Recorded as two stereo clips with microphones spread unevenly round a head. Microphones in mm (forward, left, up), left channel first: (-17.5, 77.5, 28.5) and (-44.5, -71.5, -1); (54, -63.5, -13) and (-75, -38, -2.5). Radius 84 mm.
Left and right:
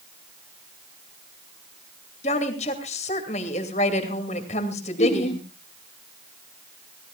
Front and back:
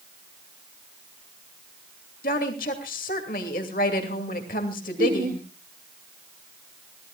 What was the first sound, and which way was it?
A woman speaking, 30° left.